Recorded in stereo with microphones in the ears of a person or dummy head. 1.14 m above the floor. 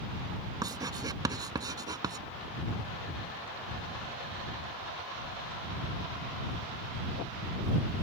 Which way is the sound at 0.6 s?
25° right (ahead or behind).